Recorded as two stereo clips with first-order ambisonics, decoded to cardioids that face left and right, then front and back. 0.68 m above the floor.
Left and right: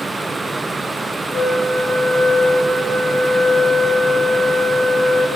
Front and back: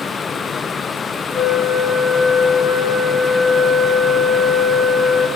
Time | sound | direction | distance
1.3 | a flute | 120° right | 4.5 m